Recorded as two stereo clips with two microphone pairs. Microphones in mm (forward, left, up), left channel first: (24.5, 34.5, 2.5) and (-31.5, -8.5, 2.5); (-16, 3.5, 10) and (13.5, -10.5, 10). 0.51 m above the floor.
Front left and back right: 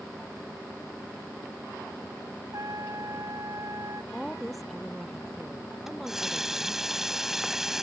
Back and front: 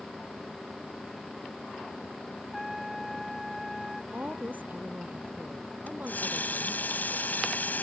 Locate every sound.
2.5 s a trumpet: 110° right
4.1 s a woman speaking: 55° right
5.9 s a running tap: 130° left